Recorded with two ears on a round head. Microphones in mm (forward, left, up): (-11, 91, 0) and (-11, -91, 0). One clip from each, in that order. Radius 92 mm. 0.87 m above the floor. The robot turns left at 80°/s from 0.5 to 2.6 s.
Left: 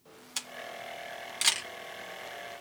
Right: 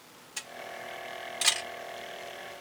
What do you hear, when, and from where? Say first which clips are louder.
0.4 s a camera shutter: left 1 dB; 60° left (ahead or behind), 1.2 m; by 1.7 s centre (ahead or behind), 1.2 m